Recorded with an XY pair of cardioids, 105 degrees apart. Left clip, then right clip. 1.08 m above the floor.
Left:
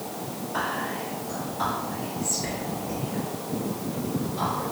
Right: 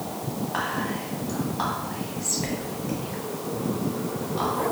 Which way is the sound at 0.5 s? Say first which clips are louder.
Even; 70° right.